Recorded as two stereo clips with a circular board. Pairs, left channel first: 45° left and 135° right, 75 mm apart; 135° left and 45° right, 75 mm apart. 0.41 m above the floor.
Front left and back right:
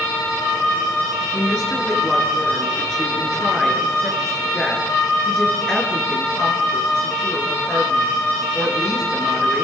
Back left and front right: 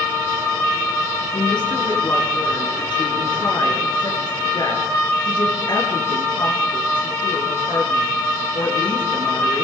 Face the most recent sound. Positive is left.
turn(degrees=130)